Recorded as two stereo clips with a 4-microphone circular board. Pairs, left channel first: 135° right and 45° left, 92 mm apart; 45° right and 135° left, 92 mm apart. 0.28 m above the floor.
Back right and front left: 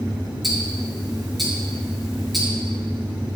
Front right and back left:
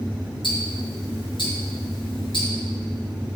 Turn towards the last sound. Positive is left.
turn(degrees=-45)